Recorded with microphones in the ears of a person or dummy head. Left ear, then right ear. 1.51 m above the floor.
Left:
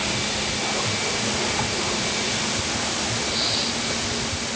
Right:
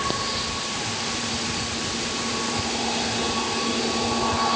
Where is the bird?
I don't hear a bird.